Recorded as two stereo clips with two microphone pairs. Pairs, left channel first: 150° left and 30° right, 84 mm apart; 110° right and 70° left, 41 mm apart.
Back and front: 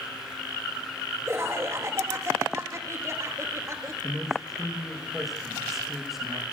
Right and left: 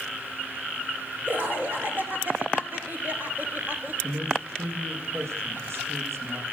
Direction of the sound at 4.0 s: 55° left.